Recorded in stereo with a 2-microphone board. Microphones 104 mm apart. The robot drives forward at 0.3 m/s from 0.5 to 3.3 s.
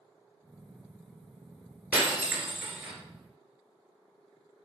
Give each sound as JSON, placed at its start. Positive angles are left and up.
{"t": 1.9, "sound": "breaking glass", "side_deg": -10, "distance_m": 2.5}